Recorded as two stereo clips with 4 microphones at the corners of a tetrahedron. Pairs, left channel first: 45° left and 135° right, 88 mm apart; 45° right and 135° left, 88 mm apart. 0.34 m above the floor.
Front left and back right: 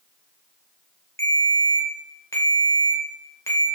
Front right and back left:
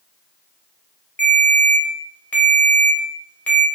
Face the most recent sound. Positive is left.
turn(degrees=10)